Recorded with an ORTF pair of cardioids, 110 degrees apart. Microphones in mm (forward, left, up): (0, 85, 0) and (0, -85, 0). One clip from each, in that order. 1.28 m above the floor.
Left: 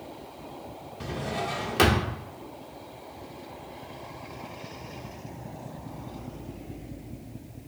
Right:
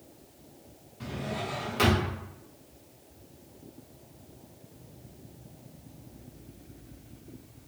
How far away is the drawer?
About 1.0 m.